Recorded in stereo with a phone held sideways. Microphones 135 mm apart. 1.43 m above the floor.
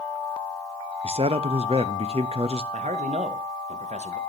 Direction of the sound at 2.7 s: 65° right (ahead or behind).